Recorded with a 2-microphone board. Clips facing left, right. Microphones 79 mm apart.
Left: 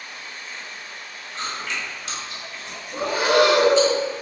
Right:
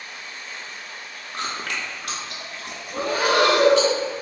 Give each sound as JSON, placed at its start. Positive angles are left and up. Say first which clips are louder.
{"t": 1.3, "sound": "chewing", "louder": "right 1 dB", "side_deg": -60, "distance_m": 0.6}
{"t": 2.9, "sound": "breathing", "louder": "left 2 dB", "side_deg": 25, "distance_m": 1.3}